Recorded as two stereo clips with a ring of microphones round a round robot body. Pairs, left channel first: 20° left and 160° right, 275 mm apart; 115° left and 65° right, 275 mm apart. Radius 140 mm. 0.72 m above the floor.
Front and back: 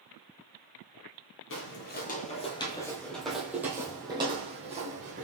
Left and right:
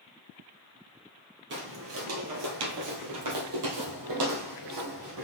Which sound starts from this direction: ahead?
Footsteps, at 1.5 s.